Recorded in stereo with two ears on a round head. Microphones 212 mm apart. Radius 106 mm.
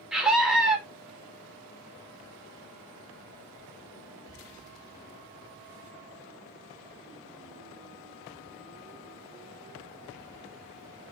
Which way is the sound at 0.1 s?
5° right (ahead or behind).